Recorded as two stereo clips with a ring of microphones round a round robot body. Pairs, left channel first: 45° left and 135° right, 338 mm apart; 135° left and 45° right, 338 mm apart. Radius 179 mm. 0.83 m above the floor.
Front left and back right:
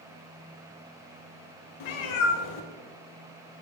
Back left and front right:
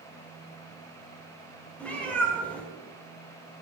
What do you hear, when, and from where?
1.8 s a cat meowing: 50° left, 0.9 m